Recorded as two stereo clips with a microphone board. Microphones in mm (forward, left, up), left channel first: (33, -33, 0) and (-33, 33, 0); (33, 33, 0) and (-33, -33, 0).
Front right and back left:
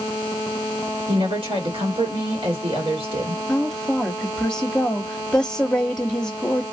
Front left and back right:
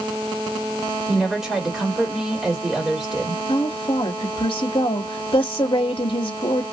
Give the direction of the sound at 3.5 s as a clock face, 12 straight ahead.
11 o'clock.